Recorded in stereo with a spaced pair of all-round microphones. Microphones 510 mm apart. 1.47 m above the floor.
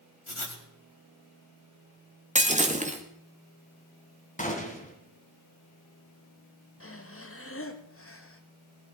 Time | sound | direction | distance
0.3 | writing | 70° left (ahead or behind) | 2 m
2.4 | breaking glass | 15° right (ahead or behind) | 1.5 m
4.4 | a gunshot | 15° left (ahead or behind) | 2 m
6.8 | breathing | 25° left (ahead or behind) | 1.2 m